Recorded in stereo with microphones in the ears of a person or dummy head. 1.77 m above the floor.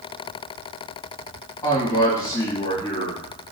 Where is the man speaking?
15° left (ahead or behind), 1.8 m.